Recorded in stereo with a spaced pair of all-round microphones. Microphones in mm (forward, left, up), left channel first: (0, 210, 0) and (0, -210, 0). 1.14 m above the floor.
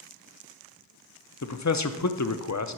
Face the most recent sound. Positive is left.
turn(degrees=40)  # may be behind; listen again after turning